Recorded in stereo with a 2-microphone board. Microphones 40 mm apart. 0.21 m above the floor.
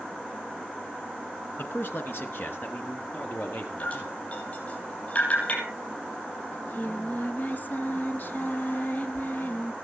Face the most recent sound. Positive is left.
turn(degrees=45)  # may be behind; listen again after turning